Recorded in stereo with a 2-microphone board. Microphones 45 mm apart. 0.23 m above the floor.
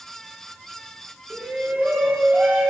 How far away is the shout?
About 3 m.